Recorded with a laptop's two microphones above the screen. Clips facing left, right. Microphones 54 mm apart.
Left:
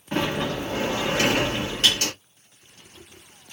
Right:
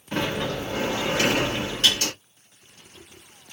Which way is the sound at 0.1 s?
25° left (ahead or behind).